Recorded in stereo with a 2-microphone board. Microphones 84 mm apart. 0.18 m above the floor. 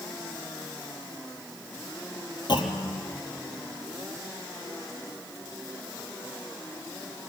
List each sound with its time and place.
2.5 s a clunk: 60° left (ahead or behind), 3 m